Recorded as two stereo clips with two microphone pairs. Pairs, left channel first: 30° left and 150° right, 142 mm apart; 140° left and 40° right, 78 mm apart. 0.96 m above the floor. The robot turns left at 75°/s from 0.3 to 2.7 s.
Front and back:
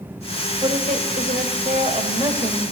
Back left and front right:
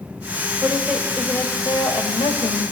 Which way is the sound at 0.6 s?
100° right.